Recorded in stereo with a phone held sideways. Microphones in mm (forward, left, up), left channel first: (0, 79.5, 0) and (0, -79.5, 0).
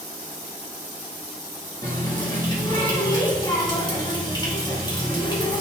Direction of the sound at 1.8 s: 30° left (ahead or behind).